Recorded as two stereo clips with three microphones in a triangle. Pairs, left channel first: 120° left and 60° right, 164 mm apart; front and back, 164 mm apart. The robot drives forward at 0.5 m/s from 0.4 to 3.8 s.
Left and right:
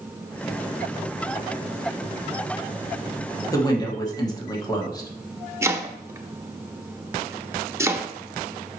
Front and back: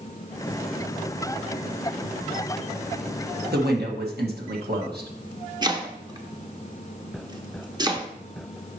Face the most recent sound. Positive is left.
turn(degrees=-130)